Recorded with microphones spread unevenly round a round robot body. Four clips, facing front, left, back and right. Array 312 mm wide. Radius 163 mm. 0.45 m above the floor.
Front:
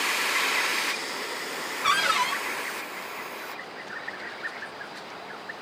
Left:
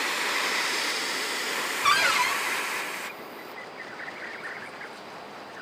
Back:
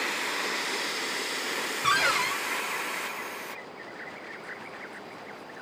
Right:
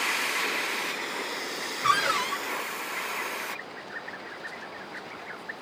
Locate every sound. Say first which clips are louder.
1.8 s a cupboard door: left 1 dB, front 2 dB; 165° left, 0.9 m